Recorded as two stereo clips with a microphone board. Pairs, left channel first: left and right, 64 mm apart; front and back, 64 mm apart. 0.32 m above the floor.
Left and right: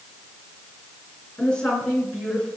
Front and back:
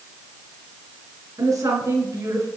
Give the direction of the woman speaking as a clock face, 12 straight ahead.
7 o'clock.